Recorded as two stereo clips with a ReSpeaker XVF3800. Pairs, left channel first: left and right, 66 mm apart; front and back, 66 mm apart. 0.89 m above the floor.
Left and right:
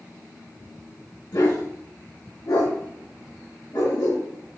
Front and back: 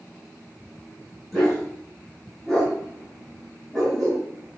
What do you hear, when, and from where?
1.3 s a dog barking: 90° left, 5 m; by 4.2 s 85° left, 6.5 m